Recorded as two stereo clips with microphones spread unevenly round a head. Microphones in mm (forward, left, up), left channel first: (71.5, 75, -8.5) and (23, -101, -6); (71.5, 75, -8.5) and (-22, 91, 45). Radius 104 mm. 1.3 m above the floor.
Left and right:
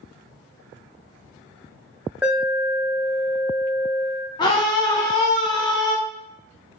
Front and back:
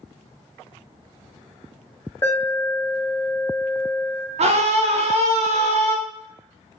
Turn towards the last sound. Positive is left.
turn(degrees=145)